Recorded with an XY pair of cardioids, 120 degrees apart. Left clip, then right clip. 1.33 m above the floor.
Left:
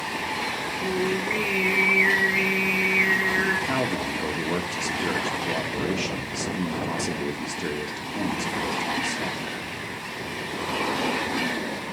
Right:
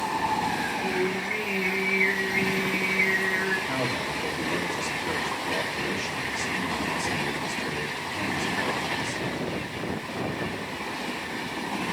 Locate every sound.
0.8 s singing: 35° left, 3.5 m
3.7 s a man speaking: 40° left, 3.5 m